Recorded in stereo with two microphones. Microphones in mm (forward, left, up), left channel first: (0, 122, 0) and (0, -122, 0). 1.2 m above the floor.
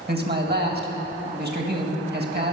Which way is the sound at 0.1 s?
40° right (ahead or behind).